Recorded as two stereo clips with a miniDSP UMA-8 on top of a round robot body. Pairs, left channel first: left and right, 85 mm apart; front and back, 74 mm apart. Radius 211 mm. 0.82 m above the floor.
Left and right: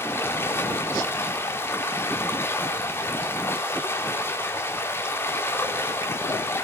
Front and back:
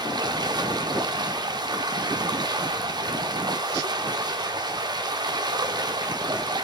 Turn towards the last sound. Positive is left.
turn(degrees=155)